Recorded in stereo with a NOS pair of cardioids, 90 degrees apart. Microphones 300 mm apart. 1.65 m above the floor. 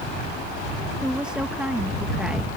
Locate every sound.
1.0 s a woman speaking: 5° right